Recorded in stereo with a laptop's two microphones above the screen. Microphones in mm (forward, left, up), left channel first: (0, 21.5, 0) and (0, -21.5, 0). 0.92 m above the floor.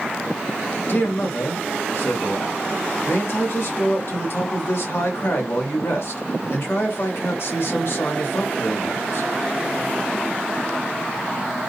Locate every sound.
0.9 s a man speaking: 65° left (ahead or behind), 1.8 m